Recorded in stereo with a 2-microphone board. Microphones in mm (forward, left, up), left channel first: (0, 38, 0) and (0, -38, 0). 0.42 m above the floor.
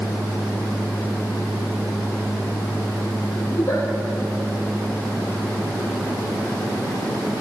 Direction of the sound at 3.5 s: 40° left (ahead or behind).